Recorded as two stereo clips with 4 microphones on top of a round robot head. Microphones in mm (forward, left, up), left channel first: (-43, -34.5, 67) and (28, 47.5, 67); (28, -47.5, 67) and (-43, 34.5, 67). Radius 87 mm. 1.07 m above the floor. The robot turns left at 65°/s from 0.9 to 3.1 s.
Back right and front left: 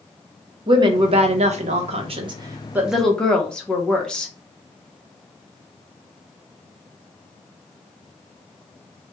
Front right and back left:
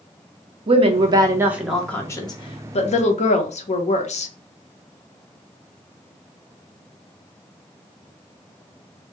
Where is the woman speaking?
95° left, 0.7 m; by 4.3 s 50° right, 0.7 m.